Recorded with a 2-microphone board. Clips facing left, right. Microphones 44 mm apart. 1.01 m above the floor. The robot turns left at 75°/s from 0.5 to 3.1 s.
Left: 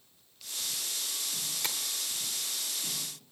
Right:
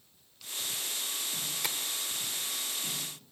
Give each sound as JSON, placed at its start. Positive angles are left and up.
{"t": 1.6, "sound": "tapping", "side_deg": -5, "distance_m": 1.5}